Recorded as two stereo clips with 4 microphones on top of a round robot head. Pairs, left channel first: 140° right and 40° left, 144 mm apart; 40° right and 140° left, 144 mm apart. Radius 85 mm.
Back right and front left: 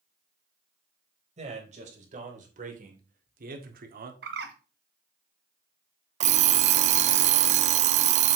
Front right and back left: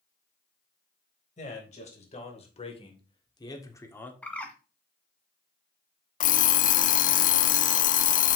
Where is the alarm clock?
5° right, 0.5 m.